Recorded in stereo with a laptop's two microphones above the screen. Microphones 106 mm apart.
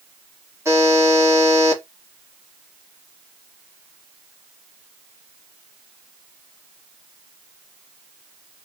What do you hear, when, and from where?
0.7 s a buzzer: 30° right (ahead or behind), 1.6 m